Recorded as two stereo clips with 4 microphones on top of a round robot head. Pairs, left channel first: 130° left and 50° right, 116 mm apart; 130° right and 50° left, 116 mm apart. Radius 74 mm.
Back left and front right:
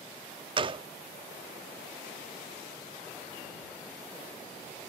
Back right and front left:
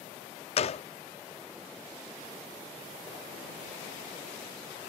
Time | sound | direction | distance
0.6 | a gunshot | 95° right | ?